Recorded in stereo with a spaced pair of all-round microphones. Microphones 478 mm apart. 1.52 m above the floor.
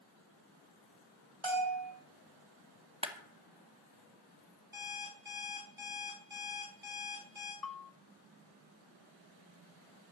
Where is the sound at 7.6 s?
45° left (ahead or behind), 0.7 m.